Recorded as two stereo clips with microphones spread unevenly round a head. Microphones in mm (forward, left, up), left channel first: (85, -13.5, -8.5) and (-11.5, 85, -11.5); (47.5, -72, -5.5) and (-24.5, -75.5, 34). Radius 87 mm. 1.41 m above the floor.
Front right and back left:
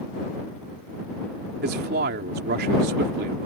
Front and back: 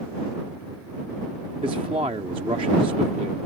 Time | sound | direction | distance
1.6 | a man speaking | 140° left | ?